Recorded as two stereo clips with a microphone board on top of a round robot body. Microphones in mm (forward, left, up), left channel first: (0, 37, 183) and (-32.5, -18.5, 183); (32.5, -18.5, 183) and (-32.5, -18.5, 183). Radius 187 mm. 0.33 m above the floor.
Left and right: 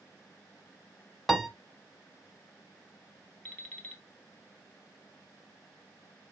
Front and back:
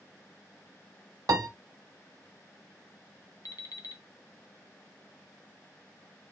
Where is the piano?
150° left, 0.7 m.